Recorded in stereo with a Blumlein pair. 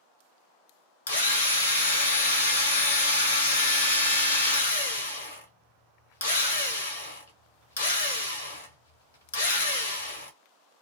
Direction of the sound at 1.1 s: 65° left.